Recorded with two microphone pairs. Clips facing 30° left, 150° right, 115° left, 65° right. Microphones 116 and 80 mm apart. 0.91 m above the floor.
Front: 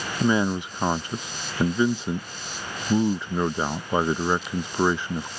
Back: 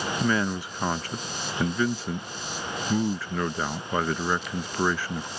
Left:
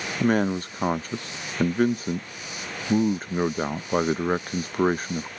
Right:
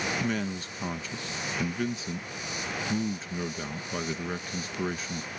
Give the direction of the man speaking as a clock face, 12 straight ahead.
9 o'clock.